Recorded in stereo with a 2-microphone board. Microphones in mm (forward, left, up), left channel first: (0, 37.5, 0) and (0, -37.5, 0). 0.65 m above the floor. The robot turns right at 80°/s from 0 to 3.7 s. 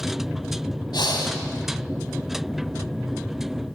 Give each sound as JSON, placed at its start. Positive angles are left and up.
{"t": 0.9, "sound": "breathing", "azimuth_deg": 80, "distance_m": 1.8}